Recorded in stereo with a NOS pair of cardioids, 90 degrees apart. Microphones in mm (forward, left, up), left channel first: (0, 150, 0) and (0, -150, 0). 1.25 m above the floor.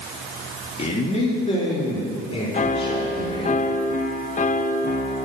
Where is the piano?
25° left, 0.9 m.